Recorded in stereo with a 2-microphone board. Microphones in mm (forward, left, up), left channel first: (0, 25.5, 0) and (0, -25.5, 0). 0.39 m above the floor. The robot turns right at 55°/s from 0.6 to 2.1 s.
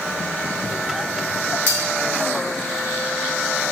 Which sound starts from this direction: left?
Cutlery clinking, at 1.7 s.